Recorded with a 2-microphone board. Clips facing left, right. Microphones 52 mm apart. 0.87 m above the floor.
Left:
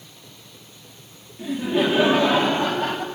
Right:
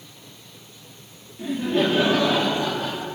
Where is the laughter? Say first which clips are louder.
Even; centre (ahead or behind), 2.5 m; by 3.0 s 50° left (ahead or behind), 3 m.